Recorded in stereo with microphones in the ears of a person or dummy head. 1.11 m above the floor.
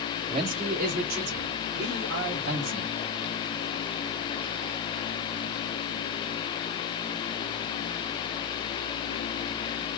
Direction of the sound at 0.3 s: 35° right (ahead or behind).